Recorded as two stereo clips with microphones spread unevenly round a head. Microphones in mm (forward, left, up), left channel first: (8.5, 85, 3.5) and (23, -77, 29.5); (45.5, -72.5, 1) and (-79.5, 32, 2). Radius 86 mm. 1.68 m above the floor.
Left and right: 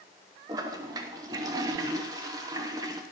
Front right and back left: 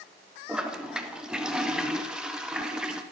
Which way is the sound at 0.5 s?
135° right.